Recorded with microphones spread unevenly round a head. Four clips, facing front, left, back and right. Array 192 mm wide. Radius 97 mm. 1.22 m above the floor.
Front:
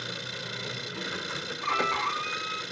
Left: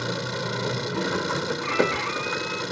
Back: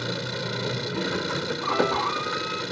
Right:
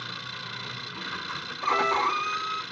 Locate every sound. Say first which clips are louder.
0.0 s an engine running: left 11 dB, back 8 dB; 130° left
1.6 s a violin: right 3 dB, back 4 dB; 125° right